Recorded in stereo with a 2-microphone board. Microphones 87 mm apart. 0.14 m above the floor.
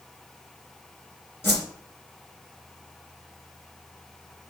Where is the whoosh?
25° left (ahead or behind), 2.5 m.